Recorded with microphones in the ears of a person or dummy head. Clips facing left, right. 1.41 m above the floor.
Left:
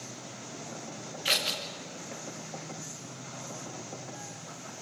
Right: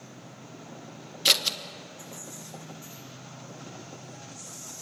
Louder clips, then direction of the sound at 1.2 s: Right 2 dB; 60° right (ahead or behind).